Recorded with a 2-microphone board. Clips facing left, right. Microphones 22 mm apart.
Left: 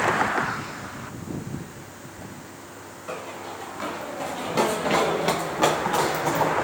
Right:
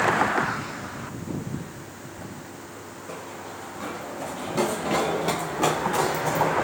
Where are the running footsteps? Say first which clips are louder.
Left 4 dB; 70° left (ahead or behind), 3 m; by 6.5 s 25° left (ahead or behind), 3.5 m.